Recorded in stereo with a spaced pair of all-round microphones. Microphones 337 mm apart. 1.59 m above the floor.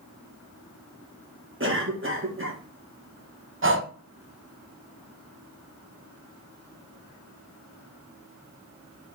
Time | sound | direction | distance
1.6 | a cough | 40° right (ahead or behind) | 1.4 m
3.6 | breathing | 35° right (ahead or behind) | 0.6 m